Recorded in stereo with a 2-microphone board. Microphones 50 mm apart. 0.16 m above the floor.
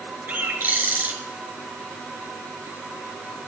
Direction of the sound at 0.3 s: 45° right (ahead or behind).